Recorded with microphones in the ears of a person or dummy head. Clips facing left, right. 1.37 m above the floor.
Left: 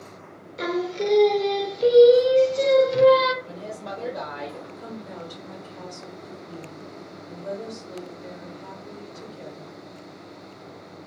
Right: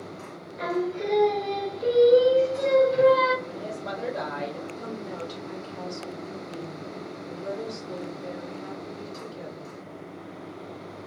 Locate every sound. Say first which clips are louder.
0.6 s singing: left 2 dB; 45° left (ahead or behind), 0.5 m
3.4 s a woman speaking: right 1 dB; 5° left (ahead or behind), 1.0 m
4.8 s a woman speaking: right 3 dB; 40° right (ahead or behind), 1.4 m